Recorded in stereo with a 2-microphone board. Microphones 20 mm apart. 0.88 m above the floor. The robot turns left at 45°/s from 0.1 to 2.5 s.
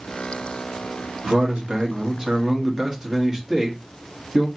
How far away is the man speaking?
About 1.3 m.